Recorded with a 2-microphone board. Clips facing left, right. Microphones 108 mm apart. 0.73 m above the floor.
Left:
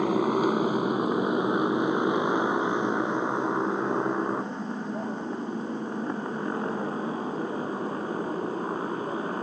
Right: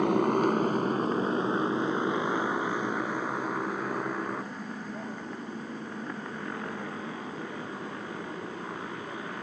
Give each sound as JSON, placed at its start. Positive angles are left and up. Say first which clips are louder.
{"t": 0.0, "sound": "a motorcycle", "louder": "left 1 dB", "side_deg": 0}